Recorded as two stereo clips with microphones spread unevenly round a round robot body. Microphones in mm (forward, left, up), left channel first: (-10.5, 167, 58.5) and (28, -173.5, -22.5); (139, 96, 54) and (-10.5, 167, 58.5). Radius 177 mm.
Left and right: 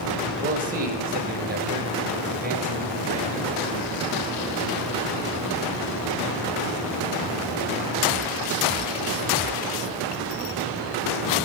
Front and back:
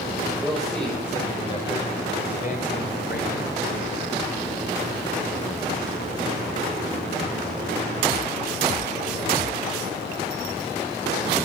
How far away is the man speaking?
About 1.6 m.